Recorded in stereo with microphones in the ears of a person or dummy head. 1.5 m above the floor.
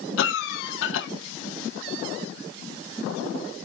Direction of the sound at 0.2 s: 80° left.